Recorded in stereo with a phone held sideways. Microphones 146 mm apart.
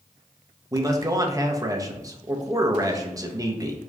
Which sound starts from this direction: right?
A man speaking, at 0.7 s.